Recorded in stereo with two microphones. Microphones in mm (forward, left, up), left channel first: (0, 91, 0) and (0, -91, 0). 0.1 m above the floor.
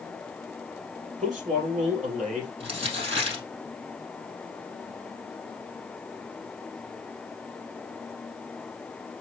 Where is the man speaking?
45° right (ahead or behind), 2.5 m.